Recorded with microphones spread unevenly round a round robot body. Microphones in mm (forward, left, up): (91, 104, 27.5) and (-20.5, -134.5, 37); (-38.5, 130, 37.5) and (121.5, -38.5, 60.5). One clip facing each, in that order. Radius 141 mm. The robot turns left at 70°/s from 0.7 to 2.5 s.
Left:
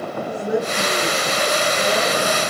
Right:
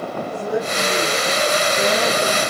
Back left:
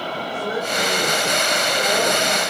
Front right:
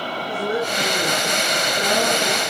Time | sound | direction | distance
0.3 | a woman speaking | 5° right | 8.5 m